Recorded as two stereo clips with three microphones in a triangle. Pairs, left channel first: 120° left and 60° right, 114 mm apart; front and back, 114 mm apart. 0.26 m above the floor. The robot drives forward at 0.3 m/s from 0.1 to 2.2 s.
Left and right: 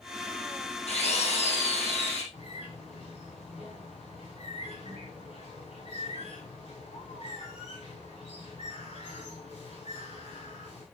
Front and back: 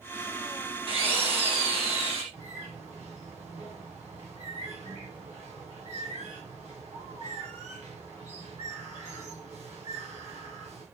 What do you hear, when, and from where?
0.9 s a drill: 140° left, 5 m; by 2.2 s 145° left, 5.5 m
2.3 s a bird: 155° left, 9.5 m